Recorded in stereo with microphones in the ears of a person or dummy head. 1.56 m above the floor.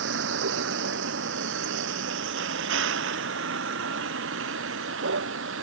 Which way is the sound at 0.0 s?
75° right (ahead or behind).